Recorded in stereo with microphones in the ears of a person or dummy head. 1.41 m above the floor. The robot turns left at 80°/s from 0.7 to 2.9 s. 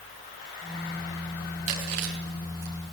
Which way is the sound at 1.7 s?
40° right (ahead or behind).